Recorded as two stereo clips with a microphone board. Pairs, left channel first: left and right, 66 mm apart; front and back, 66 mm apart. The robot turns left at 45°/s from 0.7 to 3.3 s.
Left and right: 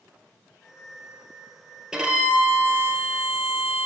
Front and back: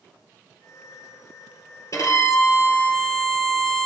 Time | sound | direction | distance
1.9 | a violin | 10° right | 2 m